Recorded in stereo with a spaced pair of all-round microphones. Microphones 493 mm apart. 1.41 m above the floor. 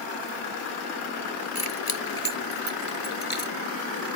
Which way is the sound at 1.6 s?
85° left.